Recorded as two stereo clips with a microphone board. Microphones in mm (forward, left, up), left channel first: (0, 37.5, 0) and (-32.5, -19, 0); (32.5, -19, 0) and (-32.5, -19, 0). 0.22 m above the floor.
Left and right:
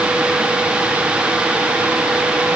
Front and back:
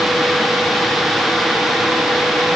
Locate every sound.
Only background noise.